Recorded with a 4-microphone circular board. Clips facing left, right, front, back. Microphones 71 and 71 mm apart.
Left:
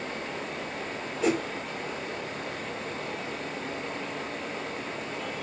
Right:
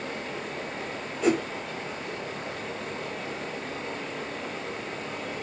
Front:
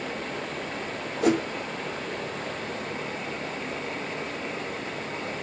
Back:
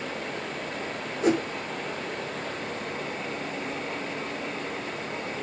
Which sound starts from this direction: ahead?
A whoosh, at 1.2 s.